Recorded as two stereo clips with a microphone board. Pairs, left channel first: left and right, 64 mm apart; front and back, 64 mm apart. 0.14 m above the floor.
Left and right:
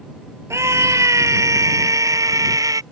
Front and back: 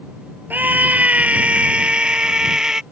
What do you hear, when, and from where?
0.5 s a scream: 120° right; by 2.8 s 100° right